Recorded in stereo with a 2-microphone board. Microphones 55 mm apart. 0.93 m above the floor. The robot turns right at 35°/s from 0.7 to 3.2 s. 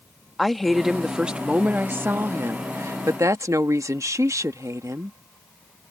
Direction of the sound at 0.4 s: Straight behind.